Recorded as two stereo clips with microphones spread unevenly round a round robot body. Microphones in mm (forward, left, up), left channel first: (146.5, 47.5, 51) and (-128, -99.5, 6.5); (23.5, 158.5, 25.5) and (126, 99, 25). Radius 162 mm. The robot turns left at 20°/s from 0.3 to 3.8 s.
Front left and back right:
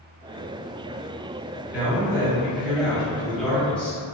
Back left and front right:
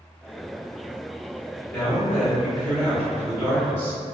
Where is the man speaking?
175° left, 1.2 m; by 4.0 s 130° left, 1.2 m.